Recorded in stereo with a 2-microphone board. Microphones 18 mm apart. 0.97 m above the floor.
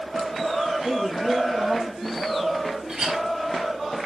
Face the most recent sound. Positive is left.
turn(degrees=-45)  # may be behind; listen again after turning